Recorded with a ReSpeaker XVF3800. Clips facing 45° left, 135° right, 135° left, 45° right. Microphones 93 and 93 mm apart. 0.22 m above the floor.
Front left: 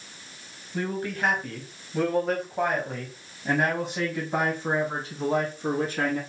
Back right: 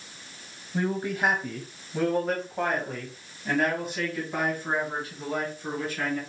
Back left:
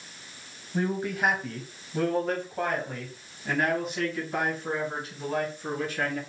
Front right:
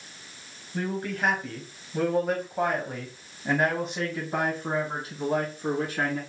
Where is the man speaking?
170° right, 1.5 m; by 6.2 s straight ahead, 2.5 m.